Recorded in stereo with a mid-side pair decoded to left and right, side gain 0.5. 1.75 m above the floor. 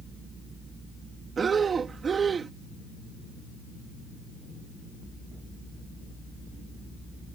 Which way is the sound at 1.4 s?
40° right.